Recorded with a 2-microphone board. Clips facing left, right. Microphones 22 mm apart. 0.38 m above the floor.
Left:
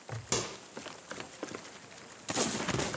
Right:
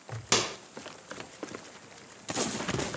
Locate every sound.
0.3 s a microwave: 40° right (ahead or behind), 0.9 m